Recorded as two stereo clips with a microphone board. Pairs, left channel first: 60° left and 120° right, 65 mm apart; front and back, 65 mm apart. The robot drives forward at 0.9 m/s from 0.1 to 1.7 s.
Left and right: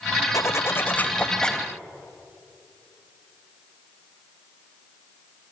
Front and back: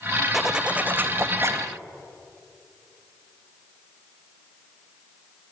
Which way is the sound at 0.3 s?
90° left.